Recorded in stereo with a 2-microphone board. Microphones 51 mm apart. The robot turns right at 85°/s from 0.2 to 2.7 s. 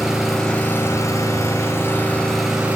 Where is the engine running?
5° right, 4.5 m; by 2.8 s 155° right, 4.5 m.